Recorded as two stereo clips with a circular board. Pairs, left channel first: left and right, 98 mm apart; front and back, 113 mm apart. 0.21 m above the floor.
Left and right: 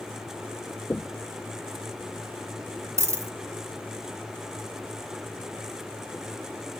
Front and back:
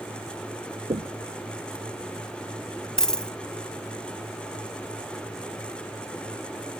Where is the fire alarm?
No fire alarm in this recording.